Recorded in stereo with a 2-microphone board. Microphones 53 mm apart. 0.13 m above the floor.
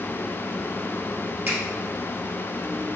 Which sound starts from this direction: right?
A finger snap, at 1.5 s.